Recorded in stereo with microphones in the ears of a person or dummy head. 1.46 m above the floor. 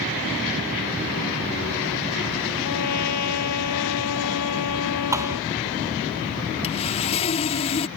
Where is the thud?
15° right (ahead or behind).